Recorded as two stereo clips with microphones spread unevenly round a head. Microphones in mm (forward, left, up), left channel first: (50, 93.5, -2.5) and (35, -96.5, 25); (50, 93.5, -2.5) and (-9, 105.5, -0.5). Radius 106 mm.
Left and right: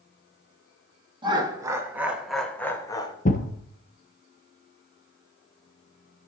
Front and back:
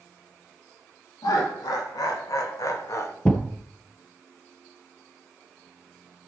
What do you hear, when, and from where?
1.2 s laughter: 25° right, 2 m; by 3.1 s 20° left, 1.8 m
3.2 s a thud: 55° left, 1.4 m